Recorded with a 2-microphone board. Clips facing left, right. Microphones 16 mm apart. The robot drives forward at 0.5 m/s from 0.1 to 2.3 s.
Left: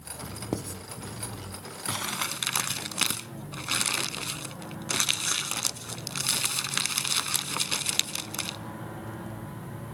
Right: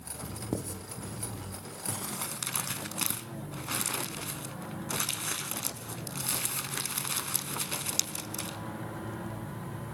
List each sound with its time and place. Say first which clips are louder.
0.5 s writing: left 2 dB; 40° left (ahead or behind), 1.3 m; by 0.8 s 35° left (ahead or behind), 1.4 m
1.9 s crumpling: left 7 dB; 65° left (ahead or behind), 0.5 m; by 8.6 s 50° left (ahead or behind), 0.6 m